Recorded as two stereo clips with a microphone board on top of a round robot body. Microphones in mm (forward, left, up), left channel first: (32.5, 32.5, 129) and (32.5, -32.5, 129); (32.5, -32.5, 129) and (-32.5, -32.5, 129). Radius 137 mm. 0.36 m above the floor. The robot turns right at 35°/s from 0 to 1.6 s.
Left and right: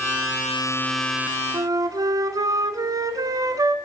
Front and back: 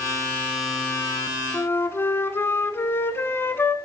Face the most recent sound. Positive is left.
turn(degrees=-55)